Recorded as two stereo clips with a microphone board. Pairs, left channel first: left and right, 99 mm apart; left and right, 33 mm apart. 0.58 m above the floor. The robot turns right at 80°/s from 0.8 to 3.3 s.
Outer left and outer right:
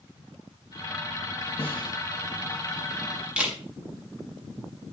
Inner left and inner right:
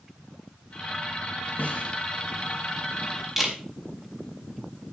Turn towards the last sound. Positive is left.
turn(degrees=-10)  # may be behind; listen again after turning